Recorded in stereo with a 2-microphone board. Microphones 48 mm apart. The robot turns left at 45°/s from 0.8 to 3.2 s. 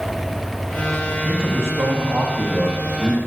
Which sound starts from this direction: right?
A man speaking, at 1.2 s.